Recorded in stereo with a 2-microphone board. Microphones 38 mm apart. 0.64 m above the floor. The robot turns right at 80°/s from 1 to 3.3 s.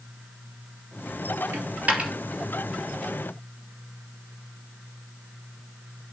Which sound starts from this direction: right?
A dropped coin, at 1.5 s.